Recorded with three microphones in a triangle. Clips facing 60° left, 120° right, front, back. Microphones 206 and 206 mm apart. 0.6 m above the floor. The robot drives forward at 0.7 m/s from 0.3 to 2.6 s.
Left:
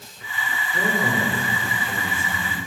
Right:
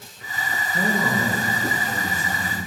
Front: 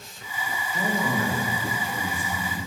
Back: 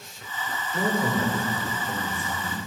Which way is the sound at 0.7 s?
120° left.